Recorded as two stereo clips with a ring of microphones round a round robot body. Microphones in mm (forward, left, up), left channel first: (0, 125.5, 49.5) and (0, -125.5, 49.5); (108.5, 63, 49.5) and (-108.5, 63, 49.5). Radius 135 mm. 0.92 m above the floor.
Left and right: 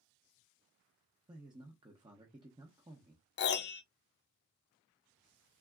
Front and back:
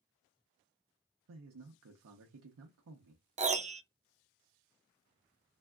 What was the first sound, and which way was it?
A man speaking, 165° right.